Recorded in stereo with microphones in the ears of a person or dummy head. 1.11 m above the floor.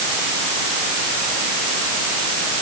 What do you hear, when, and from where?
Only background noise.